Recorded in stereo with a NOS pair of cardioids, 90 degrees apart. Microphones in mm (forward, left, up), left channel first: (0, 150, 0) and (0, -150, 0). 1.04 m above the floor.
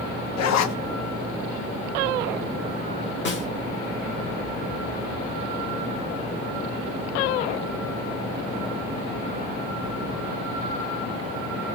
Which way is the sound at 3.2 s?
40° left.